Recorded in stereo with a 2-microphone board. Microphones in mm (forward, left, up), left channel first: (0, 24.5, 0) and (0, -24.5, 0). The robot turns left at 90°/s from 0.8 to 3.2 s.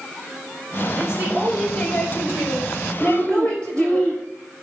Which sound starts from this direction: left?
Breathing, at 3.0 s.